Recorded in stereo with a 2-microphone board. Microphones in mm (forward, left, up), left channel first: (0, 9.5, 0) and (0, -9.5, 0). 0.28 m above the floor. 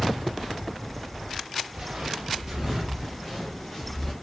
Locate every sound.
1.7 s footsteps: 40° right (ahead or behind), 2 m; by 4.1 s 25° left (ahead or behind), 2.5 m